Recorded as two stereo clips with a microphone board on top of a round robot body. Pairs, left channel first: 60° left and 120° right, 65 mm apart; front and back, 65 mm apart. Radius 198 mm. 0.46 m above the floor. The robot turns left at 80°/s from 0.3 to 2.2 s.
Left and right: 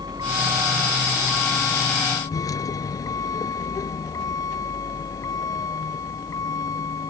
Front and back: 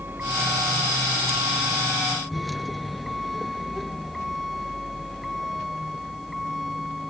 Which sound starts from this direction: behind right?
A vehicle, at 0.0 s.